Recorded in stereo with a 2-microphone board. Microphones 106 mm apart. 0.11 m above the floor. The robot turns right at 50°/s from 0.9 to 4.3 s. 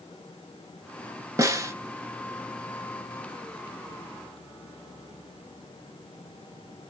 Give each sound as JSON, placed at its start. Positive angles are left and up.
{"t": 1.4, "sound": "a snare drum", "side_deg": -30, "distance_m": 0.6}